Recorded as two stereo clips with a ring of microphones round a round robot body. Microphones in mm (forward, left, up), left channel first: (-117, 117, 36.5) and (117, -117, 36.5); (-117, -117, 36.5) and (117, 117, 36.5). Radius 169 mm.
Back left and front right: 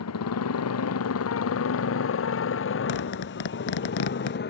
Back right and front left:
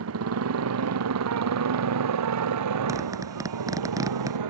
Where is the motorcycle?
90° left; by 4.5 s 75° left.